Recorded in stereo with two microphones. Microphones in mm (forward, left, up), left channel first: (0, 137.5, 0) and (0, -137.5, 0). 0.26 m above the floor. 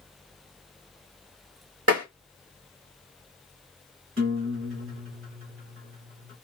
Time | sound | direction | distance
1.9 | tapping | 60° right (ahead or behind) | 2.5 m
4.2 | a guitar | 50° right (ahead or behind) | 2 m